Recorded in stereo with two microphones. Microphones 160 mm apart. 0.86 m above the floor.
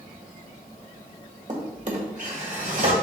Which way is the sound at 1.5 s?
50° right (ahead or behind).